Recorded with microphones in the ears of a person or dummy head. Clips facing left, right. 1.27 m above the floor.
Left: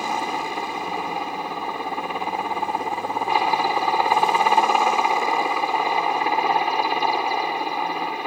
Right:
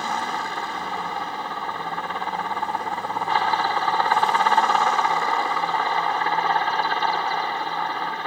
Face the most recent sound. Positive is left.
turn(degrees=5)  # may be behind; listen again after turning